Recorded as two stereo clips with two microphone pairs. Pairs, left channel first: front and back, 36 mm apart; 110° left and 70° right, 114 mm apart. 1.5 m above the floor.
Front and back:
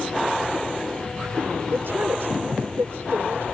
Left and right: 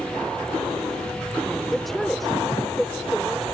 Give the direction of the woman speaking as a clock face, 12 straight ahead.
5 o'clock.